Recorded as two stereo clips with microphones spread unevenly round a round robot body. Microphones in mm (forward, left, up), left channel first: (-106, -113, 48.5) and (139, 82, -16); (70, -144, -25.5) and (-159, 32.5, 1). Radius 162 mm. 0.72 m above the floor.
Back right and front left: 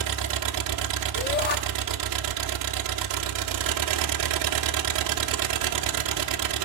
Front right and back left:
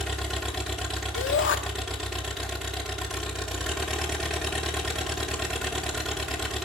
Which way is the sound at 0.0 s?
50° left.